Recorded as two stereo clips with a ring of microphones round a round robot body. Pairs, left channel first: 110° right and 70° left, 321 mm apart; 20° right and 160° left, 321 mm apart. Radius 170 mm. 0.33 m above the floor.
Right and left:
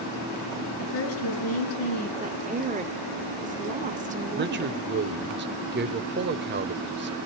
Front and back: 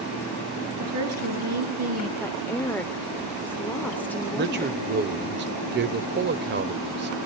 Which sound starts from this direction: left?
A man speaking, at 4.4 s.